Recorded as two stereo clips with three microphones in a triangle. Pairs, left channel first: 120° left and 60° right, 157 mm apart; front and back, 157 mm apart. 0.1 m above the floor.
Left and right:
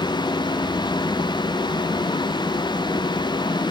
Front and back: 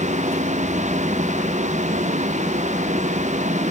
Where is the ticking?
No ticking in this recording.